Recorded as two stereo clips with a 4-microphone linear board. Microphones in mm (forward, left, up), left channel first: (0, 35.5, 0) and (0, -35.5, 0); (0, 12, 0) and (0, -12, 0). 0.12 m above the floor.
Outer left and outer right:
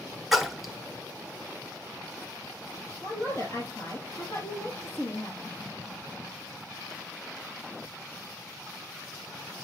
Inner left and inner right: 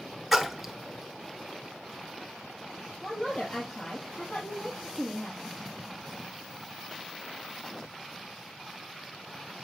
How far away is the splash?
About 1.1 m.